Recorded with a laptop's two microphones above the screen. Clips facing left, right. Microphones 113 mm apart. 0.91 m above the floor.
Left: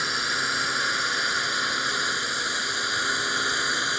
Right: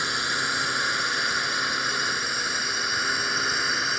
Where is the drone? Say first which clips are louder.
Even; centre (ahead or behind); by 4.0 s 5° left (ahead or behind).